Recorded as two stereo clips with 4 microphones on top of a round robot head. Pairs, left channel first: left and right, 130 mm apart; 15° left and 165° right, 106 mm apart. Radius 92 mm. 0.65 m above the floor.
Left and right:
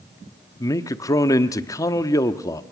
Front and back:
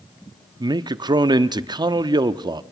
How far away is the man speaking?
About 1.0 m.